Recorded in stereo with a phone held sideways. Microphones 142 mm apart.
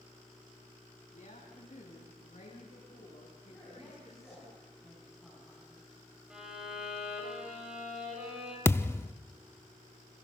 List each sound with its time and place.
1.1 s a woman speaking: 55° left (ahead or behind), 9.5 m; by 4.5 s 50° left (ahead or behind), 11 m
3.5 s a man speaking: centre (ahead or behind), 8 m
6.3 s a violin: 5° right (ahead or behind), 6.5 m
8.7 s a thud: 15° left (ahead or behind), 0.5 m